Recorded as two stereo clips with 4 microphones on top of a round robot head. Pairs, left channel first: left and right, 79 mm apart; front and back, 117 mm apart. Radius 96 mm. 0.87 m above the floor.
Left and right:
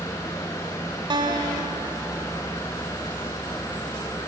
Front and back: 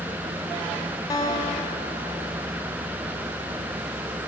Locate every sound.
1.1 s a guitar: 65° right, 2 m